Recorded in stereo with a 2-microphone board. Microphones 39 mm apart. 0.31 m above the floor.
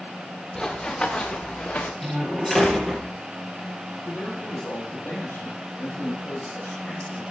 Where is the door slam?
Centre (ahead or behind), 4 m.